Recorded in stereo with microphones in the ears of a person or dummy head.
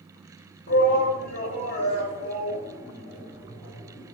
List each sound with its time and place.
0.7 s a shout: 45° left (ahead or behind), 4 m; by 4.1 s 40° left (ahead or behind), 7 m